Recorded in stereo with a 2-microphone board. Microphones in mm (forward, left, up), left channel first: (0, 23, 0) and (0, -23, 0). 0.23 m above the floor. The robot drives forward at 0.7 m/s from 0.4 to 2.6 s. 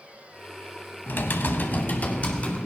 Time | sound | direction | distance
1.1 | typing on a keyboard | 45° left (ahead or behind) | 0.8 m